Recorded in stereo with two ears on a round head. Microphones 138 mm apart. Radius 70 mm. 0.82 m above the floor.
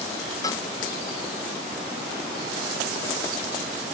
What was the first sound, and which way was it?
A cowbell, 25° left (ahead or behind).